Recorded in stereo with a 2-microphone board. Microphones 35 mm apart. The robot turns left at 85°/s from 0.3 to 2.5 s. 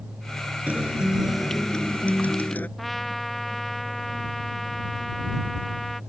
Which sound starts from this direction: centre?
A trumpet, at 2.8 s.